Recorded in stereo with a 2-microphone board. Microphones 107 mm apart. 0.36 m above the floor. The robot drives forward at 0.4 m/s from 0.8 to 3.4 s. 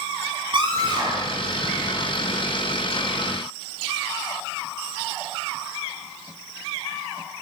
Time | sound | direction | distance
0.5 | a scream | 50° right (ahead or behind) | 7 m